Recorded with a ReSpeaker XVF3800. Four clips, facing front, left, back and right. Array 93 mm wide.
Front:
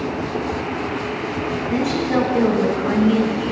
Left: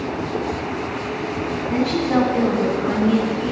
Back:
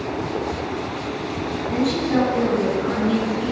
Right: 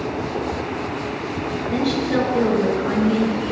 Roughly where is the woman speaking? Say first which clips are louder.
Left 2 dB, even; ahead left.